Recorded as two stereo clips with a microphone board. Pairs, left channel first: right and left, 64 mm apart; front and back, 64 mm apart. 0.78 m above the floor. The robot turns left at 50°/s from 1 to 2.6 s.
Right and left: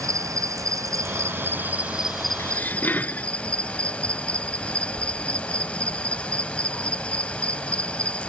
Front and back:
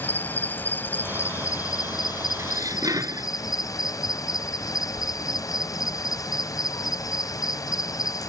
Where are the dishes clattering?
140° right; by 3.3 s 150° right.